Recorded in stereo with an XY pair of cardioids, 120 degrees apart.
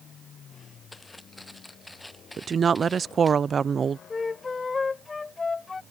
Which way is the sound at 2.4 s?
30° right.